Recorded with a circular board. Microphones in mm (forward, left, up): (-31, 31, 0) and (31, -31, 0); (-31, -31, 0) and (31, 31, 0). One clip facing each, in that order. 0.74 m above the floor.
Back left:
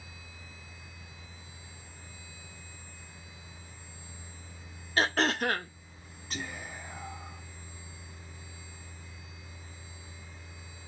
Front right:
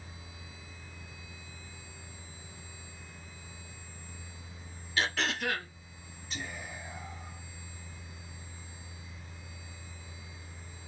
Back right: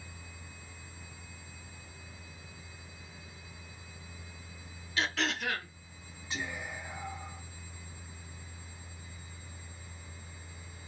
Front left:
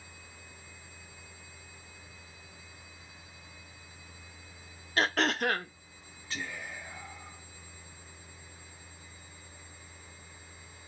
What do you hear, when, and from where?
5.0 s throat clearing: 85° left, 0.7 m
6.3 s whispering: 160° left, 1.4 m